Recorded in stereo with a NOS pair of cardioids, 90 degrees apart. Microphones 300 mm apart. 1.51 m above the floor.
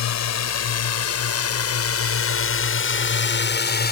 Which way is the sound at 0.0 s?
65° left.